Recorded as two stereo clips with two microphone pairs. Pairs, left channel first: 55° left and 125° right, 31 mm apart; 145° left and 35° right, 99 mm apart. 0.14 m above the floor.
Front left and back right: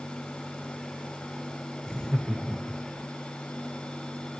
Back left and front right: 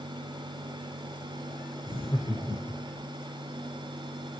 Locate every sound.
1.8 s laughter: 170° left, 6 m; by 3.0 s 175° left, 7 m